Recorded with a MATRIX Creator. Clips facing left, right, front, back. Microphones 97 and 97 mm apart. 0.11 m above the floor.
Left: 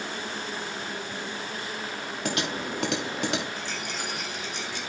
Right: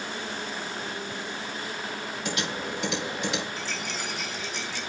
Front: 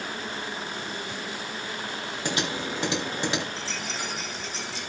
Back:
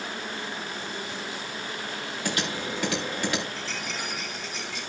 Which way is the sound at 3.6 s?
60° left.